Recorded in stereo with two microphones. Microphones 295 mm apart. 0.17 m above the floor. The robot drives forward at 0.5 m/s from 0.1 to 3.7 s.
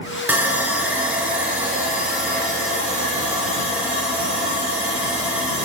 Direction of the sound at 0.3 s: 5° right (ahead or behind).